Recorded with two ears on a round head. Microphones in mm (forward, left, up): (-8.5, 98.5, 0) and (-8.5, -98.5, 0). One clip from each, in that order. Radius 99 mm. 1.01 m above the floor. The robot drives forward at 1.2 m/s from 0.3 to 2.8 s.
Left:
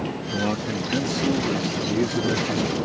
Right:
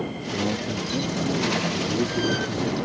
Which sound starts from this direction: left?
A man speaking, at 0.3 s.